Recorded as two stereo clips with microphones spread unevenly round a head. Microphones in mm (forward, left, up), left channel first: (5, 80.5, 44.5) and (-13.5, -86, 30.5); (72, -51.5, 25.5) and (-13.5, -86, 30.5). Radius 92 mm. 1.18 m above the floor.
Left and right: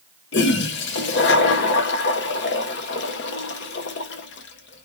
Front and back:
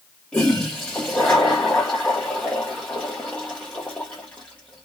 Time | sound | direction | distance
0.3 | a toilet flushing | 105° left | 0.6 m